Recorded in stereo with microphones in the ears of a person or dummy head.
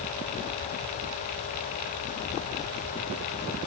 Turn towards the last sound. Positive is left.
No sound to turn to.